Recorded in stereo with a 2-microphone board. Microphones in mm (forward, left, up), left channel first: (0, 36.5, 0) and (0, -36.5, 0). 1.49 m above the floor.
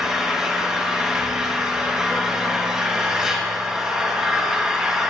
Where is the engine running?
10° right (ahead or behind), 1.0 m.